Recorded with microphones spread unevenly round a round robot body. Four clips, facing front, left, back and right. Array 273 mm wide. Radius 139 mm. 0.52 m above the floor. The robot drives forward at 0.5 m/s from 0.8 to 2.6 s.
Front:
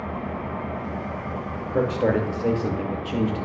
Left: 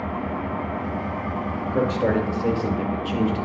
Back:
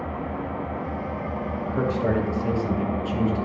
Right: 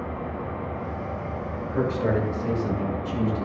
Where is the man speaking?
20° left, 2 m; by 3.5 s 30° left, 1.7 m.